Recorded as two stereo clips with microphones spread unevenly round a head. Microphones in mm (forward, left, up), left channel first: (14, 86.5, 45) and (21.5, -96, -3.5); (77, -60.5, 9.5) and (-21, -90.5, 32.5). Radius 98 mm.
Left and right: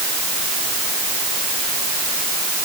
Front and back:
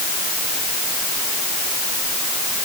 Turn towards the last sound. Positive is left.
No sound to turn to.